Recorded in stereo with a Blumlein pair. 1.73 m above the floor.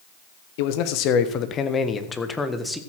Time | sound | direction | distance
0.6 | a man speaking | 50° left | 1.5 m